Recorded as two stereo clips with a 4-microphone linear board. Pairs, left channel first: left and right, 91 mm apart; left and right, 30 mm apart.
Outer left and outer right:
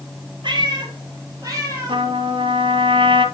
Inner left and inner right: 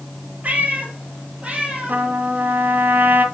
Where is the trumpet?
75° right (ahead or behind), 1.3 m.